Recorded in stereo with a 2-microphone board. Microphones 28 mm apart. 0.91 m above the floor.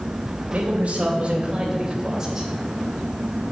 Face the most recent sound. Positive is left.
turn(degrees=-15)  # may be behind; listen again after turning